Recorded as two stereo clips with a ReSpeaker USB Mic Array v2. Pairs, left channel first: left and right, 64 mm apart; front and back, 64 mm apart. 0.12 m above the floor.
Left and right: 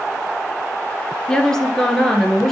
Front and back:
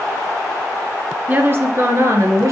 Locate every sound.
1.3 s a woman speaking: 160° left, 1.3 m; by 2.5 s 175° left, 2 m